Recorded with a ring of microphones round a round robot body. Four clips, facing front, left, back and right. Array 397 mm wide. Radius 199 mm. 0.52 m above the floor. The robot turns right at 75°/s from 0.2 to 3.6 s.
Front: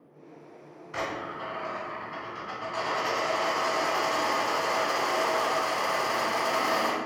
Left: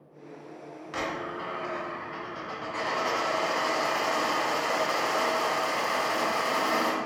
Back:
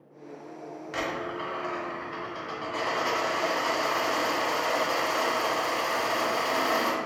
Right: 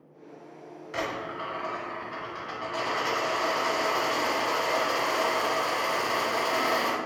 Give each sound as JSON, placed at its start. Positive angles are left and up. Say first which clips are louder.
{"t": 0.9, "sound": "a dropped coin", "louder": "even, back 1 dB", "azimuth_deg": 150, "distance_m": 1.4}